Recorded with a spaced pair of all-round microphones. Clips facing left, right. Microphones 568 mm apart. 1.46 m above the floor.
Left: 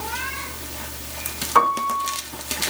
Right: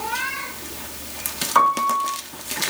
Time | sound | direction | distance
1.6 | a piano | 55° left (ahead or behind) | 6 m